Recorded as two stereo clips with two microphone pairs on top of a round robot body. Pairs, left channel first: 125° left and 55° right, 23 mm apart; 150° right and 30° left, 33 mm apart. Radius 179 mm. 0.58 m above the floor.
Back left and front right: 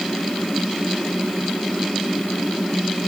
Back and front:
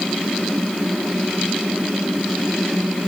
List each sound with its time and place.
Only background noise.